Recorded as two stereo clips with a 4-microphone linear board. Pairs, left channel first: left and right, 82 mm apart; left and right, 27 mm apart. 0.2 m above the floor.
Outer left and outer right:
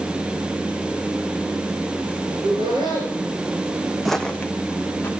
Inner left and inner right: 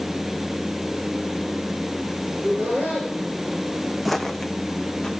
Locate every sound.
2.3 s laughter: 75° right (ahead or behind), 8 m
4.0 s footsteps: centre (ahead or behind), 0.6 m; by 5.1 s 25° left (ahead or behind), 1.0 m